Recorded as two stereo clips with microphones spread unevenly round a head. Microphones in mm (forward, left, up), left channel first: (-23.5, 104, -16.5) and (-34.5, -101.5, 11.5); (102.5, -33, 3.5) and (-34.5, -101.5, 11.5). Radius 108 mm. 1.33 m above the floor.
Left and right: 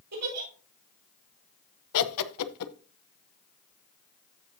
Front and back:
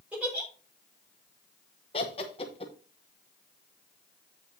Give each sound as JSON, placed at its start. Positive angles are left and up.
{"t": 0.1, "sound": "a giggle", "azimuth_deg": -70, "distance_m": 5.0}
{"t": 1.9, "sound": "laughter", "azimuth_deg": 95, "distance_m": 0.8}